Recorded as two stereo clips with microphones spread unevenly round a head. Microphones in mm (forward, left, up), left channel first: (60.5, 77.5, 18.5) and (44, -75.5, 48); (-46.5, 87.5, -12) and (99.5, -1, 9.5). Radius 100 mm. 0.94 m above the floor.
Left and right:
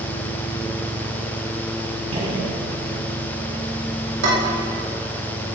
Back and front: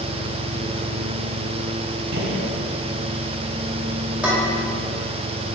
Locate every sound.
2.1 s a gunshot: 45° right, 2 m
4.2 s dishes clattering: 115° right, 2.5 m